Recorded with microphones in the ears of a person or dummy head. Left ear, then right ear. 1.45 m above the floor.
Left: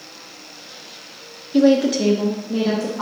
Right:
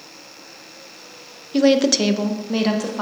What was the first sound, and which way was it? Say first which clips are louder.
A woman speaking: even; 15° right (ahead or behind).